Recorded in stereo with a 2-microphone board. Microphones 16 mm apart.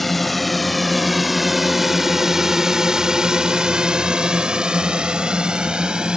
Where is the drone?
10° left (ahead or behind); by 6.2 s 70° right (ahead or behind).